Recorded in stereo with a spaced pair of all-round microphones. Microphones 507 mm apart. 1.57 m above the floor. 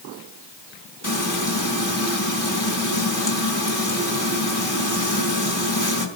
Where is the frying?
55° left (ahead or behind), 2.0 m.